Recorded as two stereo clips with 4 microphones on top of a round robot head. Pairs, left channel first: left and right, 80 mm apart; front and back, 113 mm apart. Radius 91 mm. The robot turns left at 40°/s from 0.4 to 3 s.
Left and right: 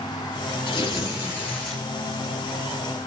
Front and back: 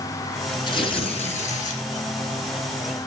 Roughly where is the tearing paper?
Ahead left.